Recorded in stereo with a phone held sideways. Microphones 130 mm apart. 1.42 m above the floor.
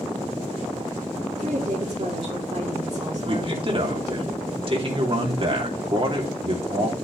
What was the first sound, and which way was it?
A woman speaking, 55° right (ahead or behind).